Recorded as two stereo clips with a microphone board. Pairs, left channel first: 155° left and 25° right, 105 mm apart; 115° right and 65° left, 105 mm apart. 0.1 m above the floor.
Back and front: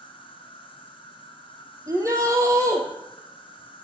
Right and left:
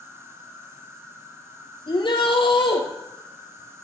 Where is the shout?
80° right, 3.5 m.